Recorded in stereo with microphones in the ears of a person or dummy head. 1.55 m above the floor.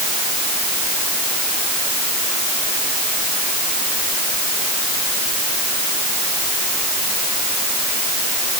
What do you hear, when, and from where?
Only background noise.